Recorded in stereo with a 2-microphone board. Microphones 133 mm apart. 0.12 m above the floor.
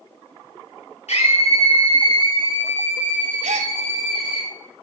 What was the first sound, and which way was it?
A scream, 60° left (ahead or behind).